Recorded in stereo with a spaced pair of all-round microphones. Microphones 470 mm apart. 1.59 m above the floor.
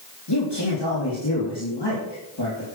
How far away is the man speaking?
About 3 m.